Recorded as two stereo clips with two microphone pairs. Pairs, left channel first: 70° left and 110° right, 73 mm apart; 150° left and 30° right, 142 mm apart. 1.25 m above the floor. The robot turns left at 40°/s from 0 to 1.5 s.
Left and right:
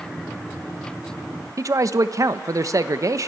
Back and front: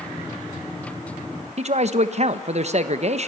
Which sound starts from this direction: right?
A man speaking, at 1.6 s.